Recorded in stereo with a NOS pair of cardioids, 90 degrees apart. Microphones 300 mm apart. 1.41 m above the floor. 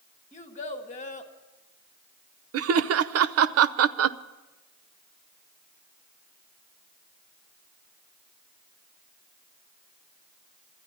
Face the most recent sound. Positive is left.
turn(degrees=-50)